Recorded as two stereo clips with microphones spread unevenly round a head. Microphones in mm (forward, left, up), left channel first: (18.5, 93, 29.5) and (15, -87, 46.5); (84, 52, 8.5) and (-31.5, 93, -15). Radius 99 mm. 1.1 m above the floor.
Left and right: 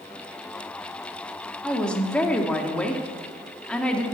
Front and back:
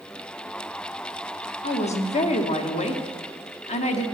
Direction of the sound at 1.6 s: 5° left.